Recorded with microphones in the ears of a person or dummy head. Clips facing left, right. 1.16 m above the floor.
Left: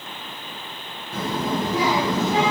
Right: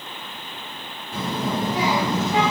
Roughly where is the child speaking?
Right.